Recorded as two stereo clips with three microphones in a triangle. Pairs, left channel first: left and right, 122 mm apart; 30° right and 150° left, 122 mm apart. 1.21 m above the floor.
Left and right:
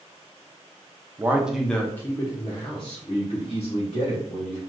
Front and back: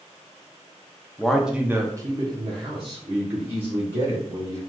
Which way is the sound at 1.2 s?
100° right.